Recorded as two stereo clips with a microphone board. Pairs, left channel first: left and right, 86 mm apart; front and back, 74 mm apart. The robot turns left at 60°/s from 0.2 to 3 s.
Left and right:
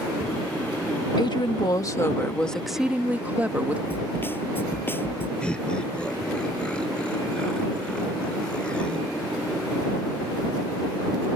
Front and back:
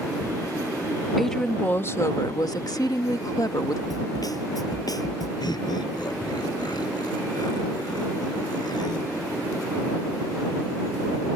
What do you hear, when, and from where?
1.2 s a woman speaking: 90° left; by 3.8 s 20° right
3.9 s a snare drum: 25° left
5.4 s laughter: 10° left